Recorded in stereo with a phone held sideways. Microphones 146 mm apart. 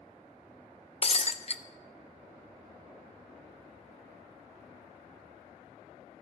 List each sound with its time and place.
1.0 s breaking glass: 45° left (ahead or behind), 0.5 m